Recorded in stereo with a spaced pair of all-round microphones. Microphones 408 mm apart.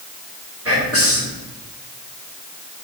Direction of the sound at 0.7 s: 35° right (ahead or behind).